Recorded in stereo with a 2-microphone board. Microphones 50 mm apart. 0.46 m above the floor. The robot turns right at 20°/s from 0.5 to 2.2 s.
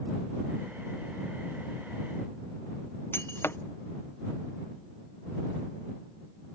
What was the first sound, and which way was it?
Breaking glass, 50° left (ahead or behind).